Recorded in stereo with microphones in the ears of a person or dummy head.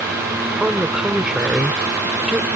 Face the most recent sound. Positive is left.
turn(degrees=-5)  # may be behind; listen again after turning